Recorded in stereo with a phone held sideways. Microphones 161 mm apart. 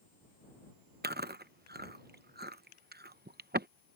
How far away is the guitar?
No guitar in this recording.